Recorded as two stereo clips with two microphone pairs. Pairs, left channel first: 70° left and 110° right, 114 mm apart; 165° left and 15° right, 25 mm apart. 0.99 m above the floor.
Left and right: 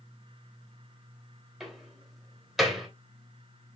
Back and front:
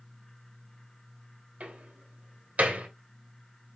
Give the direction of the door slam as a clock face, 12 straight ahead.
1 o'clock.